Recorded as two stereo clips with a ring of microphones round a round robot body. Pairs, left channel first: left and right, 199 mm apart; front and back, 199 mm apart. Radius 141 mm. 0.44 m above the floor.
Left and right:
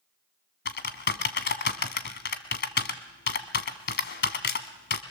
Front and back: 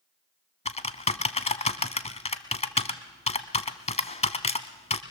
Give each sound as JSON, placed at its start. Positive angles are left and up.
{"t": 0.7, "sound": "typing on a keyboard", "azimuth_deg": 60, "distance_m": 1.7}